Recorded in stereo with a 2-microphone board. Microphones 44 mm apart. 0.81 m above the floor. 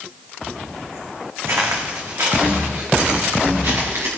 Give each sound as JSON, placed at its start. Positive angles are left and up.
{"t": 1.5, "sound": "footsteps", "side_deg": -75, "distance_m": 2.5}